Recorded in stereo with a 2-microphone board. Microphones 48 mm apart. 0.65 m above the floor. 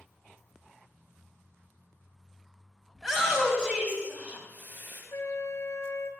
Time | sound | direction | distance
3.0 | a shout | 5° right (ahead or behind) | 3.5 m
5.1 | a flute | 65° left (ahead or behind) | 1.8 m